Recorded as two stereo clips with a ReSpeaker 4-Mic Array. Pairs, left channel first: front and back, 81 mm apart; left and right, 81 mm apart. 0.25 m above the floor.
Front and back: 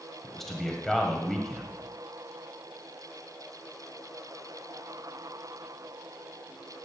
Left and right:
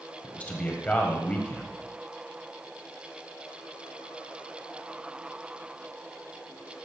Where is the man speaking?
80° left, 1.2 m.